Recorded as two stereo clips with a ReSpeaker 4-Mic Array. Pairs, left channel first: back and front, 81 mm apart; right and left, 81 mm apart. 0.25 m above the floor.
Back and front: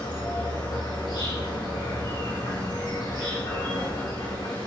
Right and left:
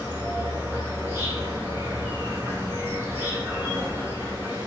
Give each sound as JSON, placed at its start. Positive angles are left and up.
{"t": 0.0, "sound": "an insect", "azimuth_deg": 155, "distance_m": 3.5}